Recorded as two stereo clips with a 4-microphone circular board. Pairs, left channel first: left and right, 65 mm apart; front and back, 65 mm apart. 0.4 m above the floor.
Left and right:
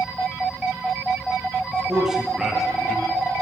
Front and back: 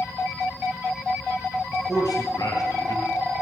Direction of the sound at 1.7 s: 15° right.